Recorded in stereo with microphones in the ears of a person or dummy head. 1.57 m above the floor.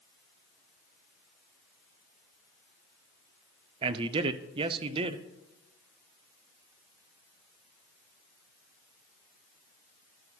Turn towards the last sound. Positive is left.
turn(degrees=-30)  # may be behind; listen again after turning